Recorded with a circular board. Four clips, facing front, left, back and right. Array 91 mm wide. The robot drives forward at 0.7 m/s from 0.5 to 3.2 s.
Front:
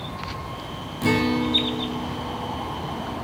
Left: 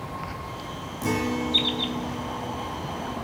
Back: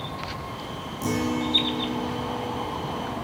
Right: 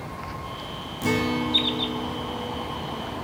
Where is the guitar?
15° right, 0.7 m; by 3.1 s 175° right, 1.2 m.